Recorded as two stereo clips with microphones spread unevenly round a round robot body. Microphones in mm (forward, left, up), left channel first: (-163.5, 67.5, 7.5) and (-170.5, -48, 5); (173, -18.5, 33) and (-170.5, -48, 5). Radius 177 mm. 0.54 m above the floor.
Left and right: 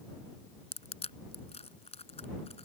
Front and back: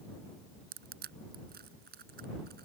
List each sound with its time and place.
0.7 s crushing: 120° left